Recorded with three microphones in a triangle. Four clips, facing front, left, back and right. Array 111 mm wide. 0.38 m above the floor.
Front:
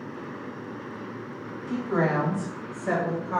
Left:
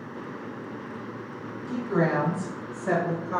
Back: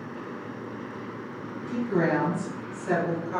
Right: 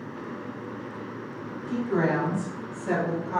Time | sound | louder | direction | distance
1.7 | a woman speaking | even, even | 10° left | 1.8 m